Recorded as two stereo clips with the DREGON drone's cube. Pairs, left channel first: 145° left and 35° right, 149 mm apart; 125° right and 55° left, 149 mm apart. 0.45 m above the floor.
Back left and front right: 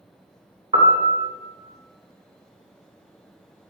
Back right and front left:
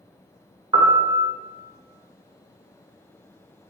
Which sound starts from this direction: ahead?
A piano, at 0.7 s.